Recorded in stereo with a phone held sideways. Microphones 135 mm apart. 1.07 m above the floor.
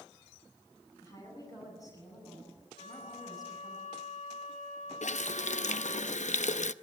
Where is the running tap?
70° left (ahead or behind), 0.6 m.